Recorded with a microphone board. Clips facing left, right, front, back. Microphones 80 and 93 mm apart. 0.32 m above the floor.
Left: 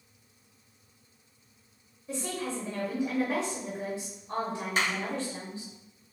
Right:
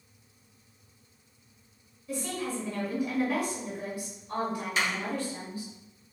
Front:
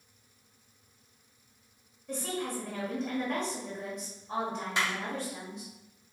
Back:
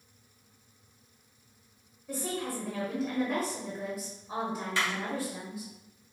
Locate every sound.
2.1 s a woman speaking: 105° left, 1.2 m
4.8 s a clap: 60° left, 1.9 m